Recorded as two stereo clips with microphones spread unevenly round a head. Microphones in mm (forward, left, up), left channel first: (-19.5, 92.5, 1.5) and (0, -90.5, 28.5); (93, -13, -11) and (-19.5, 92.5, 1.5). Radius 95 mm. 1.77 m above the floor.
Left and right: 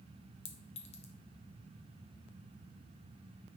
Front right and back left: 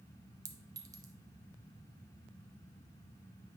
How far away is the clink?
About 0.7 m.